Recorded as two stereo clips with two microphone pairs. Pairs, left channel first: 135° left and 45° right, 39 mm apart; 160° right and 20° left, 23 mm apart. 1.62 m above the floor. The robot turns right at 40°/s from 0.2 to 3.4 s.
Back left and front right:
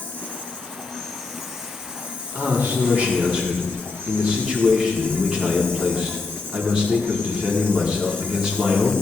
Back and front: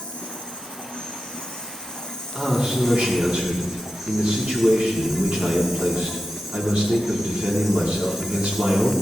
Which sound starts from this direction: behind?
An insect, at 0.0 s.